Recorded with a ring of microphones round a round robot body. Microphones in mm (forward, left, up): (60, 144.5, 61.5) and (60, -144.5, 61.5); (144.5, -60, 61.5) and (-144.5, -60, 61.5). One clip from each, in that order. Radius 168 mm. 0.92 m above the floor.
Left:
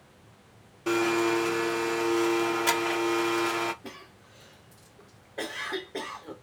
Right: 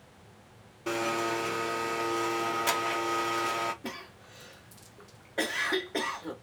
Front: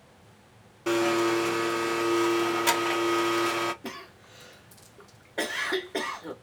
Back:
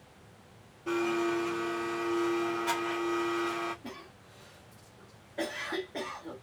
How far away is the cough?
About 1.0 m.